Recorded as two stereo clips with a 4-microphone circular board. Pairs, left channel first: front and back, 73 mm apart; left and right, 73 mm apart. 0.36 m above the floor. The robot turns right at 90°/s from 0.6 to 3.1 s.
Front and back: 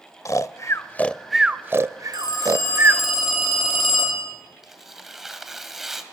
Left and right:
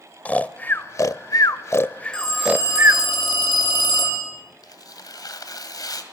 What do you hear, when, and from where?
0.2 s snoring: 25° left, 0.5 m; by 3.0 s 115° right, 0.5 m
2.1 s a phone ringing: 10° left, 7.5 m; by 4.2 s 95° left, 7.5 m
4.6 s tearing paper: 95° left, 1.9 m